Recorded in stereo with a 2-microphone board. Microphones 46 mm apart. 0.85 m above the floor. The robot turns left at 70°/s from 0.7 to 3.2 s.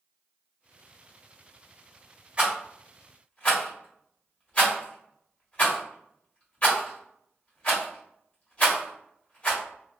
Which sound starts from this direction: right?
A rattle, at 2.4 s.